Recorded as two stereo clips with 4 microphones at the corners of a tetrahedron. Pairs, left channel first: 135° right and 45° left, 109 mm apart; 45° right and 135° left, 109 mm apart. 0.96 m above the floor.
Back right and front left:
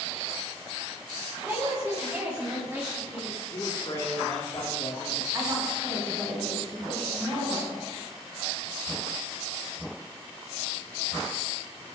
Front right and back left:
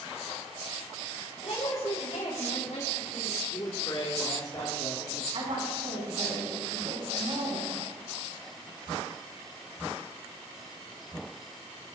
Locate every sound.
1.4 s a woman speaking: 20° right, 6 m; by 3.4 s 30° right, 4 m
3.5 s a man speaking: 90° right, 2.5 m
5.3 s a woman speaking: 105° left, 7 m